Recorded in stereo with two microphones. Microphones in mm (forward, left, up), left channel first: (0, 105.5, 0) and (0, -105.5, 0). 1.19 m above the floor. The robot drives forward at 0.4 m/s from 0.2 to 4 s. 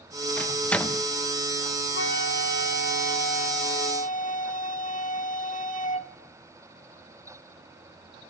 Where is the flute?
60° left (ahead or behind), 1.0 m; by 6.1 s 35° left (ahead or behind), 1.4 m.